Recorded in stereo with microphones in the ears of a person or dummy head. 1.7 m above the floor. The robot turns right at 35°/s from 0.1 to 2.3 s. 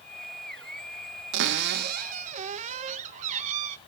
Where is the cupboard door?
70° right, 0.7 m; by 3.8 s 40° right, 0.7 m.